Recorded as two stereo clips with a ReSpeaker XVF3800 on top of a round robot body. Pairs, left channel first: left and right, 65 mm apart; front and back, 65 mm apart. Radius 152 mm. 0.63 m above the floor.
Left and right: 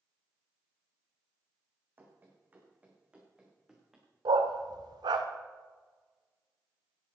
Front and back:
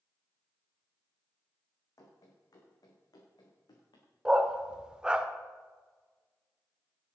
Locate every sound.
2.0 s running footsteps: 35° right, 3 m; by 4.1 s 5° right, 3.5 m
4.2 s a dog barking: 105° right, 0.7 m